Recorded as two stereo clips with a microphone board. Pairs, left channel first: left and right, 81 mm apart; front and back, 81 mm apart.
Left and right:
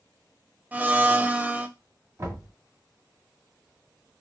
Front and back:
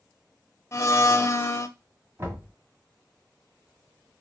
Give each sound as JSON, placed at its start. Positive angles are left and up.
{"t": 0.7, "sound": "a blender", "azimuth_deg": -30, "distance_m": 0.5}
{"t": 2.2, "sound": "knocking", "azimuth_deg": -130, "distance_m": 1.9}